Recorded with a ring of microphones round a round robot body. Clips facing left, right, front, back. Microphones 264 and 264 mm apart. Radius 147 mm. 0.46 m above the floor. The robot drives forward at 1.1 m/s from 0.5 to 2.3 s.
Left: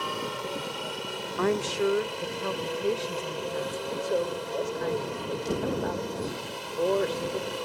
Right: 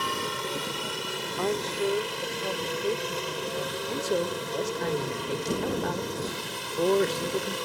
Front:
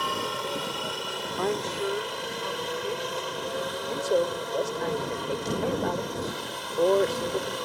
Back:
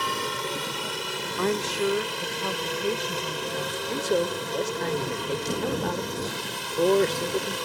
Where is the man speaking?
130° right.